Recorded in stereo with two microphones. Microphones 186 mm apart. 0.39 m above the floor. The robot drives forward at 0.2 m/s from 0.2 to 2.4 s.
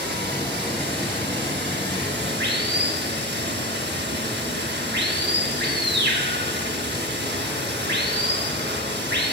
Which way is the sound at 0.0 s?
65° right (ahead or behind).